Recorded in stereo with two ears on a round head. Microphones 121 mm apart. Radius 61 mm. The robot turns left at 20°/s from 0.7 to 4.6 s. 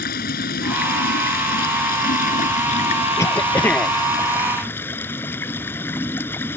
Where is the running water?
95° left; by 6.6 s 15° left.